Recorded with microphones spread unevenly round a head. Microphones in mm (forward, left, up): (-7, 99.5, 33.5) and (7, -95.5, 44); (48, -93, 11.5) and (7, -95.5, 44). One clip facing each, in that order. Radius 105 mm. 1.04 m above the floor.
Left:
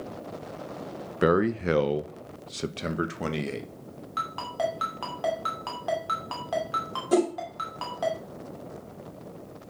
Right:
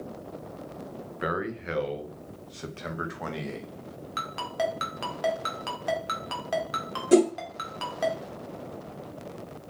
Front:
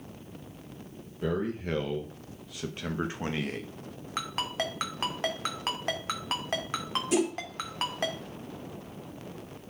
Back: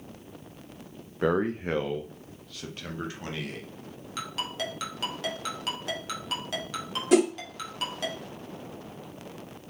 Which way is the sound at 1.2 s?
120° left.